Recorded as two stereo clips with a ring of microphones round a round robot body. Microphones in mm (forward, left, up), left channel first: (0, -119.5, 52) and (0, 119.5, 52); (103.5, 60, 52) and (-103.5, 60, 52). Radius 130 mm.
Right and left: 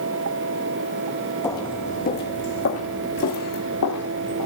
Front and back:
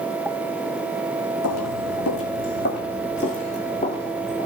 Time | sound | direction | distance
1.4 | footsteps | 10° right | 1.2 m